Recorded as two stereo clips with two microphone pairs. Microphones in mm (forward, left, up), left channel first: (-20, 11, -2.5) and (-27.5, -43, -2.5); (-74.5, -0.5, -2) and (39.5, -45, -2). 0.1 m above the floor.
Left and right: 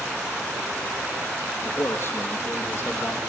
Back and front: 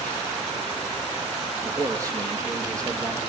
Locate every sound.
1.6 s a man speaking: 40° left, 3.5 m